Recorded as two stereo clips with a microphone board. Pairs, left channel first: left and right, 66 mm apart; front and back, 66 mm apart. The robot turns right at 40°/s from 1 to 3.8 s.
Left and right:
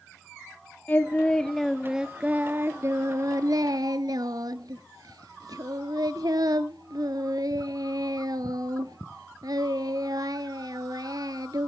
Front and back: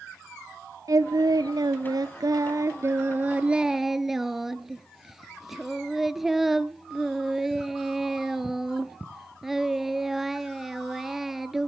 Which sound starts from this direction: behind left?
Singing, at 0.9 s.